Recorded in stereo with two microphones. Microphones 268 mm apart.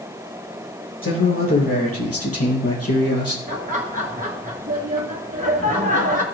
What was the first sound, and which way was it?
A man speaking, 50° left (ahead or behind).